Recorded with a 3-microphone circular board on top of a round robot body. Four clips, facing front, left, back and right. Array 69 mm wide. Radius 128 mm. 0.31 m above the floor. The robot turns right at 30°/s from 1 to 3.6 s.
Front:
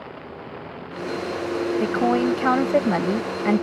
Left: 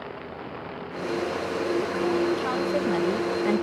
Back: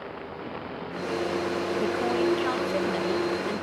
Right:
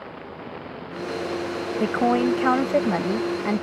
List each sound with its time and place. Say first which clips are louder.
1.8 s a woman speaking: right 9 dB, front 5 dB; 60° right; by 3.6 s 5° right